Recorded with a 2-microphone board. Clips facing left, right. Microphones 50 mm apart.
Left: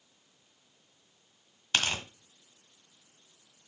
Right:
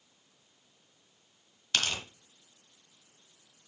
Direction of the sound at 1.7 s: 20° left (ahead or behind).